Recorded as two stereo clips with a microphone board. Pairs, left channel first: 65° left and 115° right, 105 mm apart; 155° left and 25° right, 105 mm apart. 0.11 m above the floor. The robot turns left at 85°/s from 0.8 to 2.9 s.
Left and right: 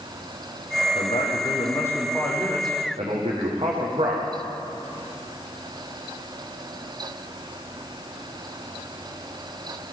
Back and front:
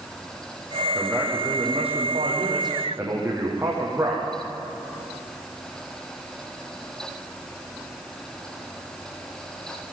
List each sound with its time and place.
0.9 s a man speaking: 80° left, 6.5 m; by 4.3 s 85° right, 6.5 m